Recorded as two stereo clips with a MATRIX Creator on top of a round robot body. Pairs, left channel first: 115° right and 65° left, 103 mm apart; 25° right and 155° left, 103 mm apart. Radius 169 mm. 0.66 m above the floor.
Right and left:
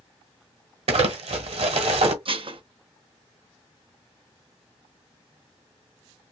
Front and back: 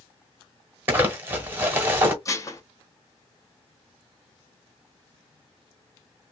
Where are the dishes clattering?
35° left, 0.9 m.